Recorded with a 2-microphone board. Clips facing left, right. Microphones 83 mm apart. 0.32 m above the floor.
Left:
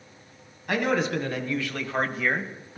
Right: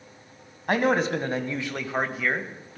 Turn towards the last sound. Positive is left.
turn(degrees=15)  # may be behind; listen again after turning